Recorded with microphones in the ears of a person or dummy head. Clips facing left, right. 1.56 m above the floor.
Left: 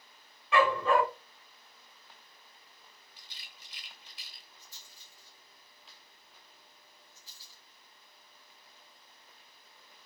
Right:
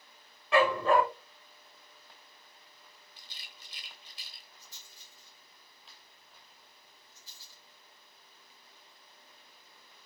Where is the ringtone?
I don't hear a ringtone.